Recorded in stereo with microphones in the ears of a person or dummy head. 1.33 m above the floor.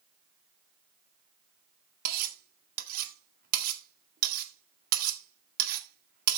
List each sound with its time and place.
2.0 s cutlery clinking: 60° right (ahead or behind), 1.9 m